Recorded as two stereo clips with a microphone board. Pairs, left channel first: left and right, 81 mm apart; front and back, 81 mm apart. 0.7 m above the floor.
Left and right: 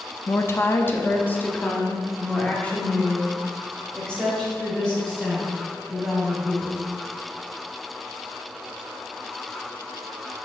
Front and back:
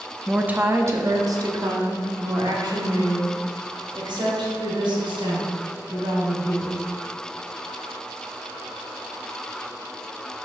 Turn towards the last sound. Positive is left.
turn(degrees=170)